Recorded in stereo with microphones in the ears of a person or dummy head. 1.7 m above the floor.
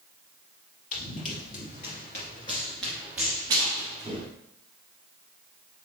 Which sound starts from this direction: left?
Running footsteps, at 0.9 s.